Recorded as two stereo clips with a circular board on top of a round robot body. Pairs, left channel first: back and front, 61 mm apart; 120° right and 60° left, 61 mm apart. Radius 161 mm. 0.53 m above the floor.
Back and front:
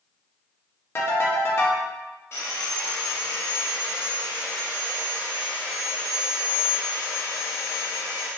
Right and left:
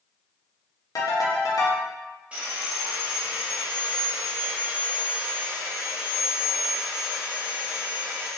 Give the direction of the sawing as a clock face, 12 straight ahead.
8 o'clock.